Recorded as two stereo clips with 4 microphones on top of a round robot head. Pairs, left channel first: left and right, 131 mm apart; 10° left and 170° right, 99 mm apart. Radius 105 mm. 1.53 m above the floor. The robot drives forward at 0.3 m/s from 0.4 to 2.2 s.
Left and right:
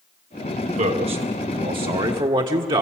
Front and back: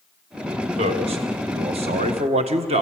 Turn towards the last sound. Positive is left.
turn(degrees=-150)